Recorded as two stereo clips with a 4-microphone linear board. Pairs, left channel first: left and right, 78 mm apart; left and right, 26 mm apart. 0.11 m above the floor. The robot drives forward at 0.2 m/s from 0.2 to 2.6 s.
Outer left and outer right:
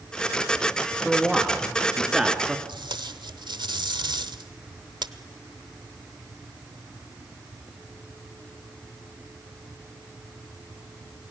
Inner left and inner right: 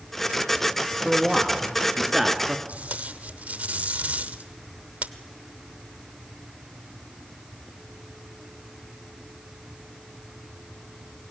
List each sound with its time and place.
1.1 s a man speaking: 5° right (ahead or behind), 1.3 m
2.7 s tape being pulled: 75° right (ahead or behind), 0.7 m